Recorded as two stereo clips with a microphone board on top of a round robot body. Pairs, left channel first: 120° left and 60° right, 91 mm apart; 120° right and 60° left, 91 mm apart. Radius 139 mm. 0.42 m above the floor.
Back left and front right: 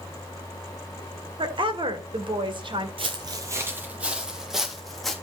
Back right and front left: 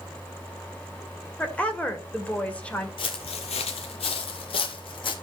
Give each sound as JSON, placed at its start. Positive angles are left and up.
{"t": 1.4, "sound": "a woman speaking", "azimuth_deg": -45, "distance_m": 2.0}
{"t": 3.0, "sound": "footsteps", "azimuth_deg": -90, "distance_m": 0.5}